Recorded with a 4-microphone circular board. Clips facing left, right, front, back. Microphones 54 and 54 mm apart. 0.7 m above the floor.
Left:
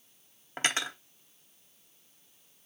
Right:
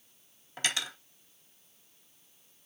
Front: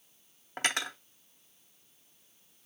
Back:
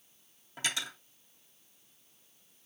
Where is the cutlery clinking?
35° left, 0.7 m.